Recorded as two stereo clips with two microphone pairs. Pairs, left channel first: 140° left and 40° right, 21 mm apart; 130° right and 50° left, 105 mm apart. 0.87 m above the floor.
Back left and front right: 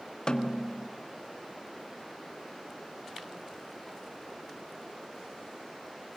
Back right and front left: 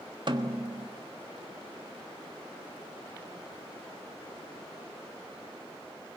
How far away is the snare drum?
About 1.3 m.